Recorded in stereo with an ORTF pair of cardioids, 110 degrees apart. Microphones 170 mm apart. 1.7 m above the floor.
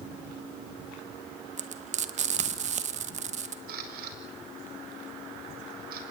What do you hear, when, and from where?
1.6 s frying: 45° right, 1.9 m
3.7 s a camera shutter: 65° right, 5 m